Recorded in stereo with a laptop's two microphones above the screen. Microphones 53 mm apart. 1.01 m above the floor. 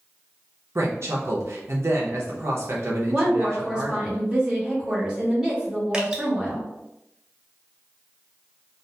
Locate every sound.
0.8 s a woman speaking: 60° right (ahead or behind), 0.6 m
3.1 s a woman speaking: 15° right (ahead or behind), 0.9 m
5.9 s dripping: 15° right (ahead or behind), 0.7 m